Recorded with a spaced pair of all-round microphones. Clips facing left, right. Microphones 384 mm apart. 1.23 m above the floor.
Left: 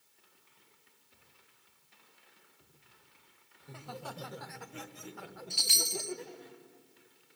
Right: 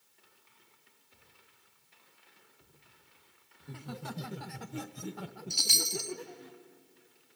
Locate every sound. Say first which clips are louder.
3.6 s laughter: right 2 dB; 25° right (ahead or behind), 1.5 m; by 6.5 s 20° right (ahead or behind), 1.7 m
5.5 s a chime: right 1 dB; 60° right (ahead or behind), 0.7 m